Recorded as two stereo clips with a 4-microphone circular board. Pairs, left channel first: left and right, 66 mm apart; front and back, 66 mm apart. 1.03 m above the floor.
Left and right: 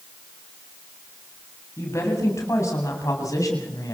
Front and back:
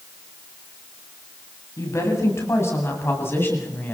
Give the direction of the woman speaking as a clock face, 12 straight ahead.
11 o'clock.